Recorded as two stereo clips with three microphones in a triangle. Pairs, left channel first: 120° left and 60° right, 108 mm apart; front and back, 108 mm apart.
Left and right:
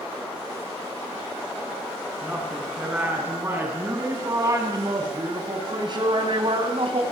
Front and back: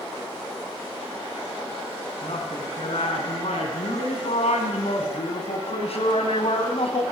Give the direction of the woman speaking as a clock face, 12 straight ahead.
11 o'clock.